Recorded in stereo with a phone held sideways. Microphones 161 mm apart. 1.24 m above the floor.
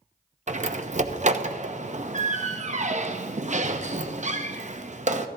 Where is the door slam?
45° right (ahead or behind), 0.8 m.